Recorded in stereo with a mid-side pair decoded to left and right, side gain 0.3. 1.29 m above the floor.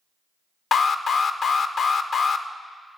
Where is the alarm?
65° left, 0.5 m.